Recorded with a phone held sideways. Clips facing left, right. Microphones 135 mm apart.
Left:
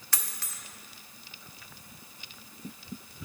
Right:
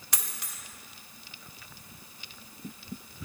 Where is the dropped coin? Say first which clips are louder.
Even; 20° right (ahead or behind), 1.0 m.